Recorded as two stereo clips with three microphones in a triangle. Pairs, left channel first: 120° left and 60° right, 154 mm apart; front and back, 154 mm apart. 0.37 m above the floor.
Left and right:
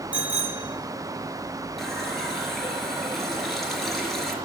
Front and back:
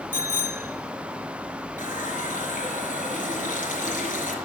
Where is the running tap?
30° left, 4 m.